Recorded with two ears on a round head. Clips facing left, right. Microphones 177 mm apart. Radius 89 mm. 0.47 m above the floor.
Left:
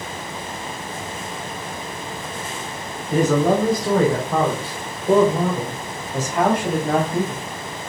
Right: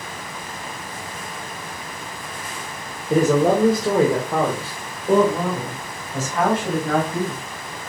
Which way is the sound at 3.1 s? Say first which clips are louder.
Right 1 dB; 35° right (ahead or behind).